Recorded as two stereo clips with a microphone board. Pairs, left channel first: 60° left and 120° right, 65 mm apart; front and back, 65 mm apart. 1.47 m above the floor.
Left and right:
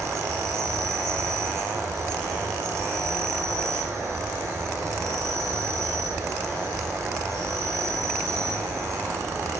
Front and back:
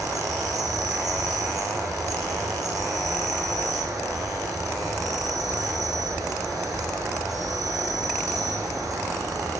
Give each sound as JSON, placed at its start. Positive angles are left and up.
{"t": 0.0, "sound": "an insect", "azimuth_deg": -165, "distance_m": 5.0}